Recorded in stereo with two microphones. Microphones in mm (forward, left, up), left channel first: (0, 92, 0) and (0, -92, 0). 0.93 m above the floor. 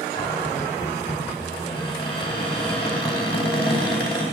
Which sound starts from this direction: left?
A cupboard door, at 0.1 s.